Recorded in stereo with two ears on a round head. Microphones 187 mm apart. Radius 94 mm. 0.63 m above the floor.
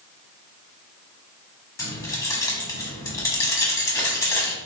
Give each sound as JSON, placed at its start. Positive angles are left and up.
{"t": 1.8, "sound": "keys jangling", "side_deg": 15, "distance_m": 0.9}